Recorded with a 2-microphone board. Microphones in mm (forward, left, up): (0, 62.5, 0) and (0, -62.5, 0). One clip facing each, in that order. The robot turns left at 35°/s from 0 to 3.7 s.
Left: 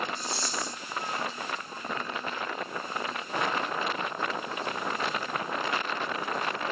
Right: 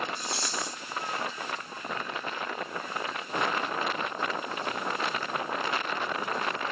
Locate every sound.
0.2 s a rattle: 75° right (ahead or behind), 4 m; by 0.8 s 80° right, 4 m